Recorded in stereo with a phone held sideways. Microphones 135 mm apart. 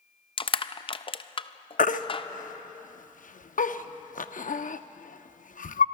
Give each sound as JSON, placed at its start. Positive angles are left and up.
{"t": 0.4, "sound": "crushing", "side_deg": 40, "distance_m": 0.5}
{"t": 1.8, "sound": "a baby crying", "side_deg": 75, "distance_m": 0.6}